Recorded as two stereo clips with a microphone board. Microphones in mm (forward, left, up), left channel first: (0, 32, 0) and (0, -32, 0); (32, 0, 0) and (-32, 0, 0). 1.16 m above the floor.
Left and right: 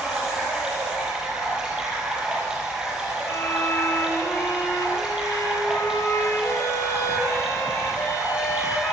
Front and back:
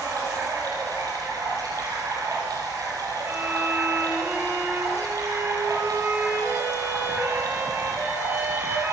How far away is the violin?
About 5 m.